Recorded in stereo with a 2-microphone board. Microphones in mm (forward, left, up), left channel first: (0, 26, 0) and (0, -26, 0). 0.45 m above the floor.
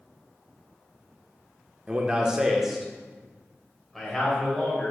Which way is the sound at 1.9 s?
25° right (ahead or behind).